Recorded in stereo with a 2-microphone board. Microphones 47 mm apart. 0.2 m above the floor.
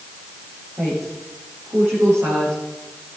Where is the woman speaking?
85° right, 9.5 m.